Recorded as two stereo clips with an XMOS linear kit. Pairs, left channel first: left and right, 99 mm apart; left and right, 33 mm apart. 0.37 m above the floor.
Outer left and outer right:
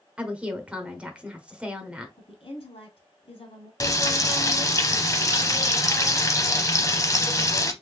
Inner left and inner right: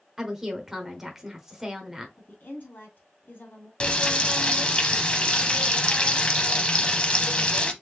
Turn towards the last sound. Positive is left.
turn(degrees=30)  # may be behind; listen again after turning